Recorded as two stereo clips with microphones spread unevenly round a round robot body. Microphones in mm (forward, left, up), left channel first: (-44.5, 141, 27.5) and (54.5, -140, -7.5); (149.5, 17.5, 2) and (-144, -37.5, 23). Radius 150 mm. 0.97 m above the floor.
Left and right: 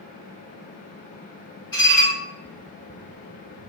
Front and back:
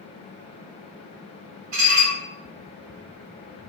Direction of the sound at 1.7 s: 175° right.